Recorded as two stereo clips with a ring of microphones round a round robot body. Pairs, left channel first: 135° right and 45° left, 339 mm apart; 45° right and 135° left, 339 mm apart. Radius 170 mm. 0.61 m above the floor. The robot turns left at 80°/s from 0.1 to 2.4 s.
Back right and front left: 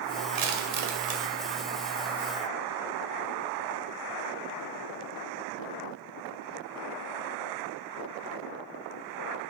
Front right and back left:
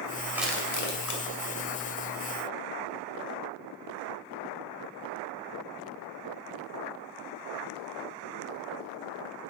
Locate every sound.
0.3 s crushing: 55° left, 2 m; by 1.2 s 20° right, 2 m